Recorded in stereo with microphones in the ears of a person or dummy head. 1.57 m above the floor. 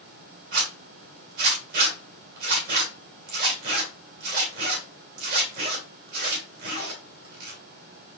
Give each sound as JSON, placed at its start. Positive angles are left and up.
{"t": 0.5, "sound": "a zipper", "side_deg": -45, "distance_m": 3.0}